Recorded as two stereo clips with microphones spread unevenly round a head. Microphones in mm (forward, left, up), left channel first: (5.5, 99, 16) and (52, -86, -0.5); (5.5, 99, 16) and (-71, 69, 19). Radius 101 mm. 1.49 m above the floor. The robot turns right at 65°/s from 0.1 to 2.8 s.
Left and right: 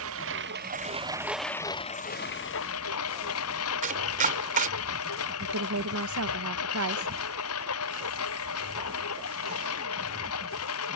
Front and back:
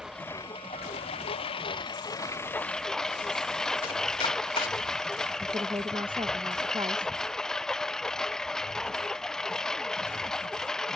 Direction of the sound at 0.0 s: 70° right.